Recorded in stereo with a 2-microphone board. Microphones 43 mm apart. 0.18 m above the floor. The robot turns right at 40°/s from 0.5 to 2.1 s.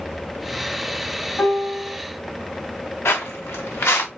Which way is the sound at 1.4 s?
45° left (ahead or behind).